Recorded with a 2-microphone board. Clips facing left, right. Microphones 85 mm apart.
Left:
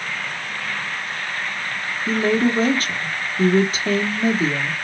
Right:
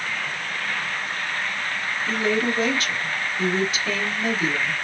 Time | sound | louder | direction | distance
2.1 | a woman speaking | left 5 dB | 40° left (ahead or behind) | 0.9 m